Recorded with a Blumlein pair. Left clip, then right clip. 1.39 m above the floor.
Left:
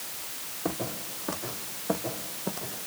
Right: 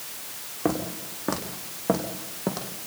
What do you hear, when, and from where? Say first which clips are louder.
0.7 s footsteps: right 5 dB; 30° right, 6 m; by 2.7 s 35° right, 4 m